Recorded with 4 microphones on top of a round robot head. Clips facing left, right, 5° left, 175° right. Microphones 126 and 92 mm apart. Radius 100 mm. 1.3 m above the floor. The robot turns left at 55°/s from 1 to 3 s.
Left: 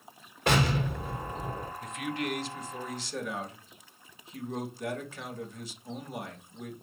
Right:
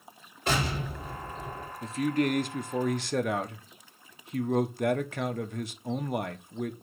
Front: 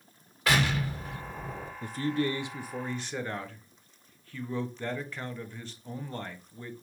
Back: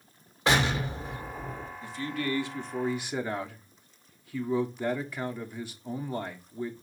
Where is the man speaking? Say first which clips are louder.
Right 9 dB, front 4 dB; 30° right, 1.2 m; by 6.7 s 95° right, 1.2 m.